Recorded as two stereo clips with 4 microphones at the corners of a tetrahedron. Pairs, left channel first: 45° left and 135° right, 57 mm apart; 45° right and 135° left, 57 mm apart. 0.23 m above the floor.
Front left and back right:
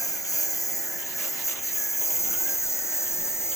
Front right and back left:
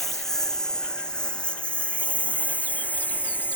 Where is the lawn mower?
40° left; by 3.6 s 10° left.